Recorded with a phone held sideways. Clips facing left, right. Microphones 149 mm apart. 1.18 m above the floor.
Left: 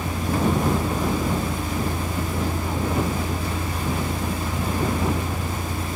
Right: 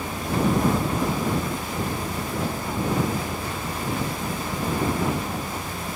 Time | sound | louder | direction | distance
0.0 | a vehicle | left 1 dB | 85° left | ?